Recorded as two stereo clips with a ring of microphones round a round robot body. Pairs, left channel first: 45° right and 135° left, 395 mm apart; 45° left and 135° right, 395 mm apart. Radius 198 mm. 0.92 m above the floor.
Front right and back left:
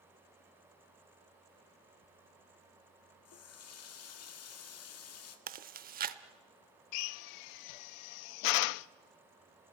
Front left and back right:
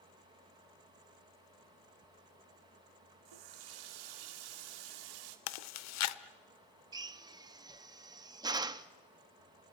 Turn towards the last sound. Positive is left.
turn(degrees=-55)